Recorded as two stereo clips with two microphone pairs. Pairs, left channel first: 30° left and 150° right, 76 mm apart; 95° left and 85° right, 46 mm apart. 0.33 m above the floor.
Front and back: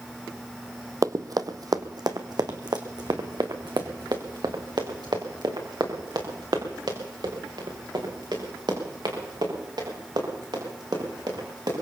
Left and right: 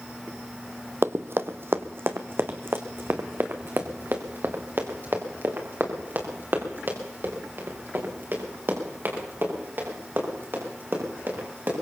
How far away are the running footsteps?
About 0.7 m.